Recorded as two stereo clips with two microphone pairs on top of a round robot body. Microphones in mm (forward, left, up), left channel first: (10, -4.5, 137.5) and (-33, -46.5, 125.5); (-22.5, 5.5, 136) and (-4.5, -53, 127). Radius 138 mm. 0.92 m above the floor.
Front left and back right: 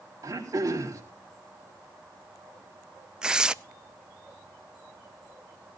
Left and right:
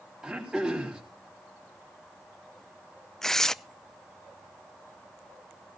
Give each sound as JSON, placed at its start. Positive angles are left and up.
{"t": 0.2, "sound": "throat clearing", "azimuth_deg": -150, "distance_m": 4.0}
{"t": 3.2, "sound": "tearing paper", "azimuth_deg": -160, "distance_m": 0.7}